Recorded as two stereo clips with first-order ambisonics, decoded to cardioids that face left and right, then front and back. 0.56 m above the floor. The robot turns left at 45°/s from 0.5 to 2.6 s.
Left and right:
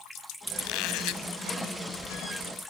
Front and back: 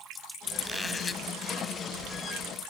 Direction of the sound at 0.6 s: 90° left.